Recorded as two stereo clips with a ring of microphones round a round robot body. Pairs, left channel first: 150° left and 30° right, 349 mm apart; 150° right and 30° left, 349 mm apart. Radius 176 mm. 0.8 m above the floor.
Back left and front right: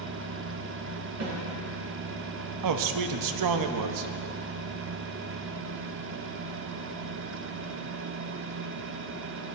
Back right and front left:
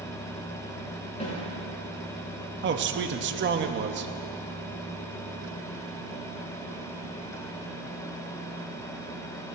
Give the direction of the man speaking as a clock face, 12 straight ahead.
1 o'clock.